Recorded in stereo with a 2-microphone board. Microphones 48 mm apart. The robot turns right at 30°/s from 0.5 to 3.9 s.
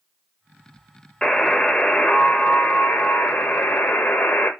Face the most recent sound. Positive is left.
turn(degrees=95)